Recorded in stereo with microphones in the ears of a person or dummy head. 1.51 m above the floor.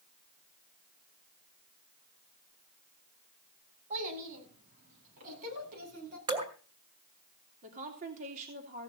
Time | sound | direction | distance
3.9 | a child speaking | 40° right (ahead or behind) | 8 m
6.3 | dripping | 25° right (ahead or behind) | 2 m
7.6 | a woman speaking | 40° right (ahead or behind) | 2.5 m